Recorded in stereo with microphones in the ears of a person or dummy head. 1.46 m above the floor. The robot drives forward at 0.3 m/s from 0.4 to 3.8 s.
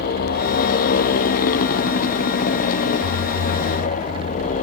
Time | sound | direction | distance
0.0 | a motorcycle | 55° left (ahead or behind) | ?